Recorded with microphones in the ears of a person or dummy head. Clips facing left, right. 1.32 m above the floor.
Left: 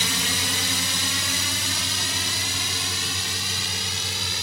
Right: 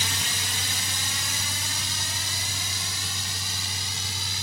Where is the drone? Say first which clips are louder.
Left 6 dB; 60° left (ahead or behind).